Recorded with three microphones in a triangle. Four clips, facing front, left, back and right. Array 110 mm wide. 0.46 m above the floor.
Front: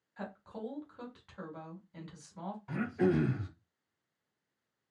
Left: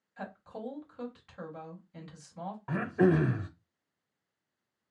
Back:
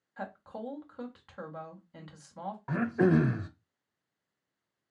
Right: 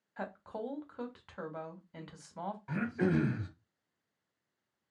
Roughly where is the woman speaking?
Behind right.